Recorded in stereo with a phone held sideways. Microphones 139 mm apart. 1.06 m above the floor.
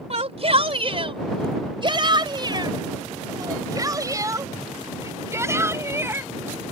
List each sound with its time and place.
0.1 s a shout: 50° right (ahead or behind); by 6.3 s 15° right (ahead or behind)